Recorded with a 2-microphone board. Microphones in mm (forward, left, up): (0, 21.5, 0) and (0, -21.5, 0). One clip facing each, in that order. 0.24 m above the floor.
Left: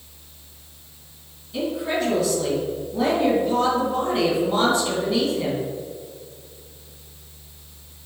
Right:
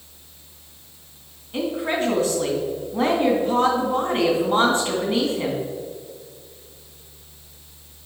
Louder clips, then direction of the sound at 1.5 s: Right 1 dB; 40° right (ahead or behind).